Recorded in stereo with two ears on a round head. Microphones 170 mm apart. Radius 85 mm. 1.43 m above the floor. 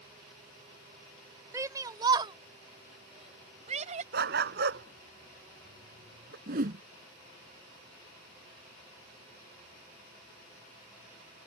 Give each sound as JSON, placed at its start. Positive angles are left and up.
{"t": 1.5, "sound": "a shout", "side_deg": -15}
{"t": 4.1, "sound": "a dog barking", "side_deg": -55}
{"t": 6.5, "sound": "a whoosh", "side_deg": -50}